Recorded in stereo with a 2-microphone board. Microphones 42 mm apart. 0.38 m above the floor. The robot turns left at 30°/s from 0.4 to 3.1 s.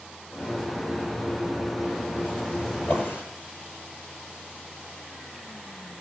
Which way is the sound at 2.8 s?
60° left (ahead or behind).